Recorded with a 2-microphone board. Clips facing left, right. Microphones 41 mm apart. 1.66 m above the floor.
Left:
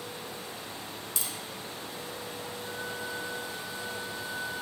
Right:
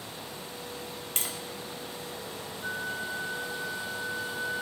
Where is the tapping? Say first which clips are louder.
Right 4 dB; 45° right (ahead or behind), 2 m.